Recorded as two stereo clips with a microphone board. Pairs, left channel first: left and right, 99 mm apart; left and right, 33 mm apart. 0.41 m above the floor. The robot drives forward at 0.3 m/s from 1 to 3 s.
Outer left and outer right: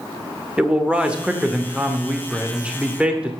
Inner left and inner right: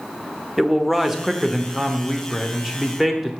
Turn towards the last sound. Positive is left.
turn(degrees=-10)  # may be behind; listen again after turning